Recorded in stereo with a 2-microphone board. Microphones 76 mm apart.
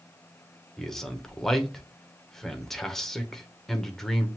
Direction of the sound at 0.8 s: 5° left (ahead or behind).